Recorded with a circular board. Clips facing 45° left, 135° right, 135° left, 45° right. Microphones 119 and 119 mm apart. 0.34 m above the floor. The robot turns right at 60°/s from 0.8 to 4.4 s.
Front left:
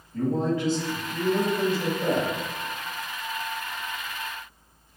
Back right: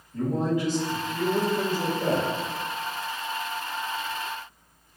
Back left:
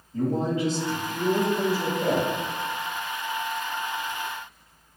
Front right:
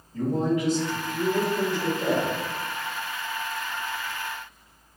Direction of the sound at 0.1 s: 160° left.